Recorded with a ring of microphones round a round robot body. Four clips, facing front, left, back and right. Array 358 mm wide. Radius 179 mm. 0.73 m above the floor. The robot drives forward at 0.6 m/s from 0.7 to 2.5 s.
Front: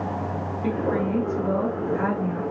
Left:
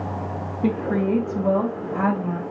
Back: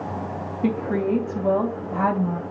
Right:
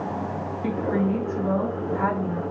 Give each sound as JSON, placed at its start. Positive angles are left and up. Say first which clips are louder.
{"t": 0.6, "sound": "a woman speaking", "louder": "left 3 dB, back 2 dB", "azimuth_deg": 130, "distance_m": 3.0}